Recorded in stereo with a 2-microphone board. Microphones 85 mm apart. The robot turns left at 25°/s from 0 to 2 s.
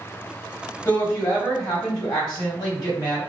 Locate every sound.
0.8 s a woman speaking: 35° left (ahead or behind), 1.9 m; by 3.2 s 50° left (ahead or behind), 1.9 m